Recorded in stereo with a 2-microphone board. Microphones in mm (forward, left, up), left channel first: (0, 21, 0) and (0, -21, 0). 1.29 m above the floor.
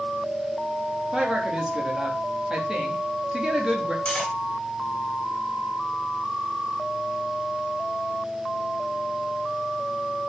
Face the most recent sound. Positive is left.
turn(degrees=20)  # may be behind; listen again after turning